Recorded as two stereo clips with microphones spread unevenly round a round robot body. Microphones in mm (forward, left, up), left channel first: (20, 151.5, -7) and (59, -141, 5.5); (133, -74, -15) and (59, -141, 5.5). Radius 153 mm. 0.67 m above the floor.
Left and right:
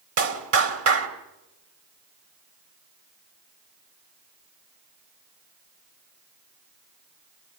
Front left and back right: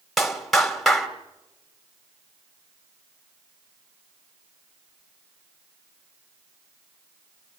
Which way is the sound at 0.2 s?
45° right.